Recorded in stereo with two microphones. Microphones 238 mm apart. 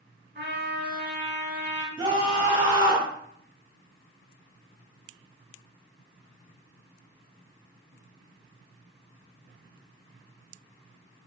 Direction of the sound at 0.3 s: 45° right (ahead or behind).